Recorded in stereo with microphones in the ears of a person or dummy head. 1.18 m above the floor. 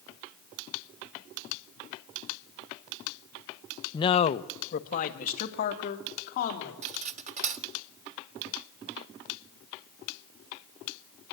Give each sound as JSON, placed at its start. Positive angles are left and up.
{"t": 3.9, "sound": "a man speaking", "side_deg": 20, "distance_m": 0.5}
{"t": 6.8, "sound": "cutlery clinking", "side_deg": -40, "distance_m": 0.7}